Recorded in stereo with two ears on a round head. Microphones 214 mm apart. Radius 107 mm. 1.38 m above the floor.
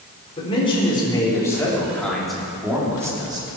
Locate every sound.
0.4 s a man speaking: 25° left (ahead or behind), 5 m; by 3.6 s 25° right (ahead or behind), 4 m